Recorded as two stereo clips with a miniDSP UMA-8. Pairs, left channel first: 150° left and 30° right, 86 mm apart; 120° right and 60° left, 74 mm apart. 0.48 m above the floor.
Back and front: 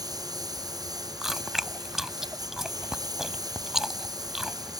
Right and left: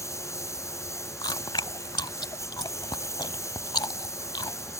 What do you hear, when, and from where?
0.0 s a lawn mower: 70° right
1.2 s chewing: 115° right